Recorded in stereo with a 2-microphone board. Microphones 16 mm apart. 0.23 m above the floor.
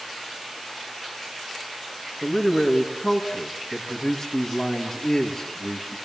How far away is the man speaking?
About 3.5 m.